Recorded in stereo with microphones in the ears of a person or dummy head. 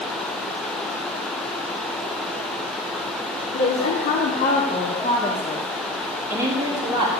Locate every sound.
3.5 s a woman speaking: 65° left (ahead or behind), 1.5 m; by 7.1 s 25° right (ahead or behind), 1.5 m